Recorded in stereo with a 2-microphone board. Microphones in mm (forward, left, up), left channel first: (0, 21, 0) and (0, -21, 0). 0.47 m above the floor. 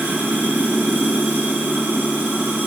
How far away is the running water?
About 3 m.